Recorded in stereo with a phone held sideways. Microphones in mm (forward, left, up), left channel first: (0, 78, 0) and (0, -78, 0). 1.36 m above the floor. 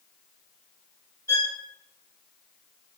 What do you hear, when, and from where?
1.3 s a violin: 25° left (ahead or behind), 3.5 m